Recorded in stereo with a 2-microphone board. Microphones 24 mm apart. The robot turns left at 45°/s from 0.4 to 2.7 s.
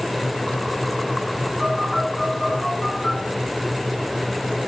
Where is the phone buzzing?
25° right (ahead or behind), 9 m; by 3.2 s 25° left (ahead or behind), 9 m.